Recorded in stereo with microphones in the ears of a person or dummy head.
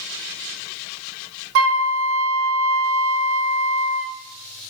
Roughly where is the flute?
Right.